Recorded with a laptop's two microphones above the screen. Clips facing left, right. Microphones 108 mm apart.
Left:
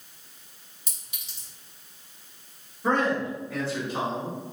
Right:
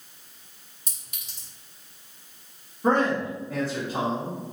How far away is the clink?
About 1.7 m.